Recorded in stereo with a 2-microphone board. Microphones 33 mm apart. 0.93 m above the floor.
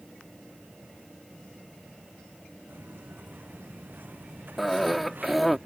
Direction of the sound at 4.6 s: 5° right (ahead or behind).